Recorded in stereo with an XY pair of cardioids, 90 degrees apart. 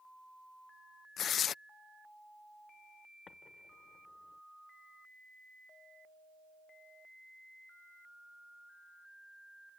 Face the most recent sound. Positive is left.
turn(degrees=55)